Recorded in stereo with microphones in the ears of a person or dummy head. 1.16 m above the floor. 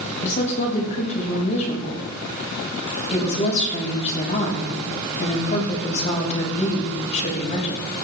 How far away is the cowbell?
No cowbell in this recording.